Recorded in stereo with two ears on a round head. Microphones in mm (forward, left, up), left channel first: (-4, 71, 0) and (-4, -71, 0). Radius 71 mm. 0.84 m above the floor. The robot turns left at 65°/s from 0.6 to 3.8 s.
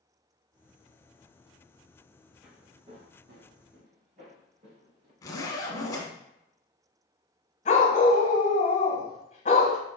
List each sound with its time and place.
2.4 s footsteps: centre (ahead or behind), 2.5 m; by 5.1 s 40° right (ahead or behind), 3 m
5.2 s a zipper: 20° left (ahead or behind), 1.1 m
7.7 s a dog barking: 45° left (ahead or behind), 1.3 m